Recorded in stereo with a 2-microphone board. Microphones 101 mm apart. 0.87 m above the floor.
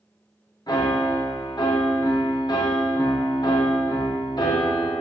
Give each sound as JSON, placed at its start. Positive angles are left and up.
{"t": 0.7, "sound": "a piano", "side_deg": 45, "distance_m": 0.6}